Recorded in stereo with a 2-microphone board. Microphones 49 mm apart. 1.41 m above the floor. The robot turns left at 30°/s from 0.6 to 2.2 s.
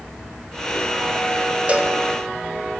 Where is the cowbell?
30° right (ahead or behind), 1.8 m; by 2.0 s 20° right (ahead or behind), 1.8 m.